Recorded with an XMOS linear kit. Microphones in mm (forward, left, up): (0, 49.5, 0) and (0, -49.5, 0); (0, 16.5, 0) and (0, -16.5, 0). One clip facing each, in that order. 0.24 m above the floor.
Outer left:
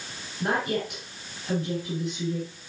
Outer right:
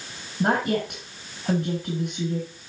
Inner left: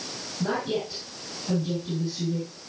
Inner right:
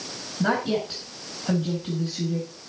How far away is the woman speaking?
About 2.5 m.